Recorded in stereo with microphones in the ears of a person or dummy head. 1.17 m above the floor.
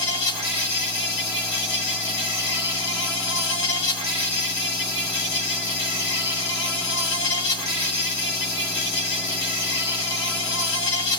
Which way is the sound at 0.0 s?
85° left.